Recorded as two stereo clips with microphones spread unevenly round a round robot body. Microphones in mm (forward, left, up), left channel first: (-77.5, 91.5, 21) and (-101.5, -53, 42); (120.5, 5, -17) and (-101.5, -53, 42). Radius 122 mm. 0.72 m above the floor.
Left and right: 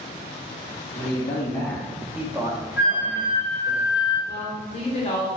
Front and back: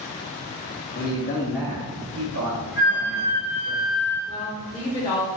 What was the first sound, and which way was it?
A man speaking, 35° left.